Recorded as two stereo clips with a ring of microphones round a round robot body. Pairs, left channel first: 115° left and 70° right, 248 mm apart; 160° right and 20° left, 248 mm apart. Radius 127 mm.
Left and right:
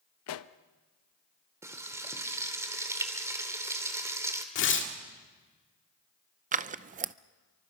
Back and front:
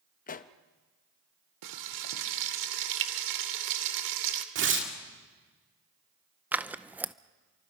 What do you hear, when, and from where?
0.3 s a pop: 145° left, 0.7 m
1.6 s frying: 10° left, 1.7 m
4.5 s tearing paper: 70° left, 1.8 m
6.5 s scissors: 55° right, 0.6 m